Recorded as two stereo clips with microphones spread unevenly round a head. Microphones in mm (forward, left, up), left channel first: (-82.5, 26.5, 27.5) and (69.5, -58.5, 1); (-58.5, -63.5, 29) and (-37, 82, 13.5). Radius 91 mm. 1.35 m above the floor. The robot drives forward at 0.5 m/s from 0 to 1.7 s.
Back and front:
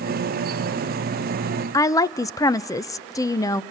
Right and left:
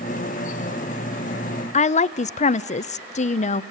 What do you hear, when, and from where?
1.7 s a woman speaking: 140° right, 0.6 m